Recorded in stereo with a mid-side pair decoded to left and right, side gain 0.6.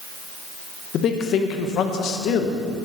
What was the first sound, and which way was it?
A man speaking, 55° left.